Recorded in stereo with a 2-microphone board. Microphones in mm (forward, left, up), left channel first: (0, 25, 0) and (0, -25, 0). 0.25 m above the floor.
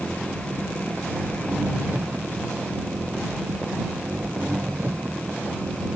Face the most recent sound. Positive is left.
turn(degrees=-45)  # may be behind; listen again after turning